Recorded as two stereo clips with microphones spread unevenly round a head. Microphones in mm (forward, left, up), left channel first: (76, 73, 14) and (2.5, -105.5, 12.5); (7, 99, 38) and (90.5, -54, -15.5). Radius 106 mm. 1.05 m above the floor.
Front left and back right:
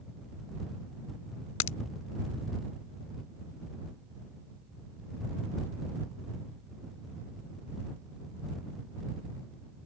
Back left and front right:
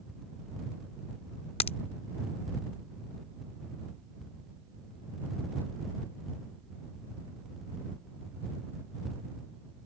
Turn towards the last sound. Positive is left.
turn(degrees=80)